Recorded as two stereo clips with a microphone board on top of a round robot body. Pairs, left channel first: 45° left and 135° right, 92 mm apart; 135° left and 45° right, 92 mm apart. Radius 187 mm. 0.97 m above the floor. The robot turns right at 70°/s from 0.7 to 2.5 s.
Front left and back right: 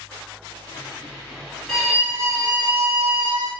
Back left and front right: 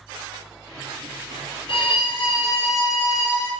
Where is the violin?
125° left, 0.9 m; by 3.5 s 175° right, 0.9 m.